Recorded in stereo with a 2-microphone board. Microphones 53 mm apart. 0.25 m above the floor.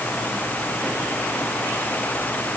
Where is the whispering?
No whispering in this recording.